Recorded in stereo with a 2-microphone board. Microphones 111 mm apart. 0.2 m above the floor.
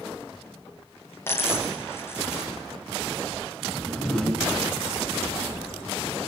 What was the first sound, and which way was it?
A dropped coin, 20° left (ahead or behind).